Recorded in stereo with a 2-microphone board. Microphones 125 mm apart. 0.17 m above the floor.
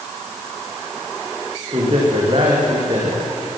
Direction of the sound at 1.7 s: 45° right (ahead or behind).